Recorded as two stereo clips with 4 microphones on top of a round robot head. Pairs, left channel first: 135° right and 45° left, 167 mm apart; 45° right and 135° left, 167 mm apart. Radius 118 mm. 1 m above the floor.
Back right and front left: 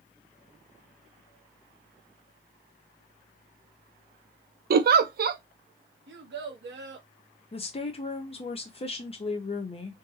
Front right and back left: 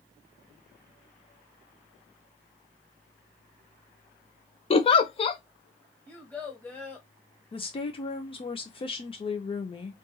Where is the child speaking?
40° left, 1.4 m.